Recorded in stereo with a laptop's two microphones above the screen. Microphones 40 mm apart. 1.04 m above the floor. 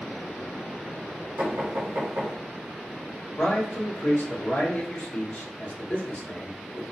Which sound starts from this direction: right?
Knocking, at 1.4 s.